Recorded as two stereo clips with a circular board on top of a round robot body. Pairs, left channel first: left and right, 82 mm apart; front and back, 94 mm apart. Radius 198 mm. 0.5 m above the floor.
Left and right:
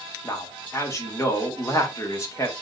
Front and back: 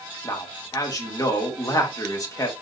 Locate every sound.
0.2 s a man speaking: 45° left, 2 m